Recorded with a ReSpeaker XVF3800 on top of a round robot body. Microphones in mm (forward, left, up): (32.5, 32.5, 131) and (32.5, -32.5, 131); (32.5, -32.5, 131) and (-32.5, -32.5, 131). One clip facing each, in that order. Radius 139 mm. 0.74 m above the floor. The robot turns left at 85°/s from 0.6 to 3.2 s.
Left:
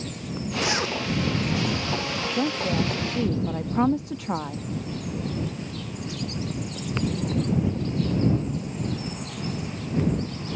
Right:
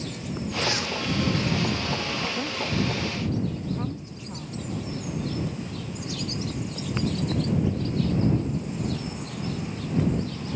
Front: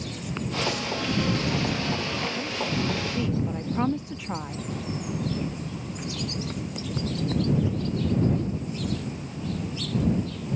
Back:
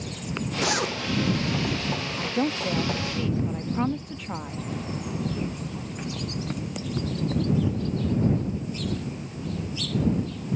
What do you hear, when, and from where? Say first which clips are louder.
0.6 s a zipper: left 3 dB, back 4 dB; 170° left; by 1.0 s 140° left
2.2 s a woman speaking: left 3 dB, back 3 dB; 170° left; by 4.7 s 85° left